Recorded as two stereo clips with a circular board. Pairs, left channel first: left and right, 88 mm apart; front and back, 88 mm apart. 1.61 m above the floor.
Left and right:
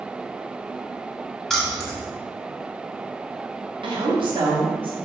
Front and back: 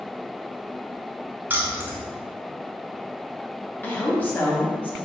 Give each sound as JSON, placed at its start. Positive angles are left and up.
{"t": 1.5, "sound": "keys jangling", "azimuth_deg": 165, "distance_m": 0.7}
{"t": 3.8, "sound": "a woman speaking", "azimuth_deg": -70, "distance_m": 1.0}